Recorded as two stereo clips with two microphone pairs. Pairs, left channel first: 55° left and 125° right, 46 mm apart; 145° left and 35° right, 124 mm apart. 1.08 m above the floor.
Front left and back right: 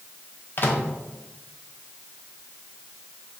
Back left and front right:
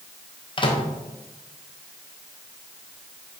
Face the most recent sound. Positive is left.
turn(degrees=95)